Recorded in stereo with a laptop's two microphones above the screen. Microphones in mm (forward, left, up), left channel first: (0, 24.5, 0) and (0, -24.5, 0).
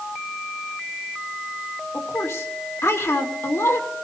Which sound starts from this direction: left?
A woman speaking, at 1.9 s.